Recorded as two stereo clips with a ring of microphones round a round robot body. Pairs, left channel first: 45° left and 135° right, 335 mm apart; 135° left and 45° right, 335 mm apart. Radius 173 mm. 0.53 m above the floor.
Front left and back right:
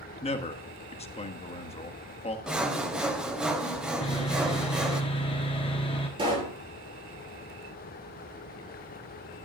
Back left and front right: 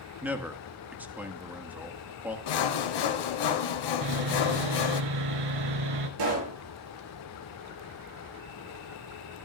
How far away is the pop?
About 4.5 m.